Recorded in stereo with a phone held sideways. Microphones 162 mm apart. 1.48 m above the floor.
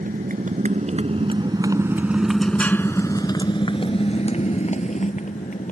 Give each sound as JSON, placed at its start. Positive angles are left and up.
{"t": 0.0, "sound": "a motorcycle", "side_deg": -60}